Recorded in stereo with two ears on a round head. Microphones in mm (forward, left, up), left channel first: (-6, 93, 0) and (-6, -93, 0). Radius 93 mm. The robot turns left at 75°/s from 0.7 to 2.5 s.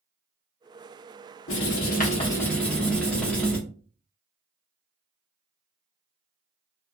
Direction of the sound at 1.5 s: 80° left.